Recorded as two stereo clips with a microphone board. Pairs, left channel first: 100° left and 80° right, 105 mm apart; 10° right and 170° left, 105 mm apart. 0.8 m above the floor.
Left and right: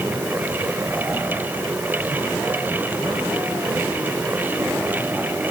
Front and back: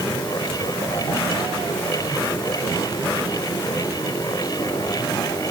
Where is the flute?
I don't hear a flute.